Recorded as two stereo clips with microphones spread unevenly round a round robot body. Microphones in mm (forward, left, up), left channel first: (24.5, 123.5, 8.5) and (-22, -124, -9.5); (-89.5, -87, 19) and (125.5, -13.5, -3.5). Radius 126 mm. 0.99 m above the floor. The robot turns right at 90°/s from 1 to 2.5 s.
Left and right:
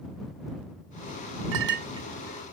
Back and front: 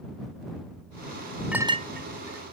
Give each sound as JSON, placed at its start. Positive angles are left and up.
{"t": 1.5, "sound": "a clink", "azimuth_deg": -70}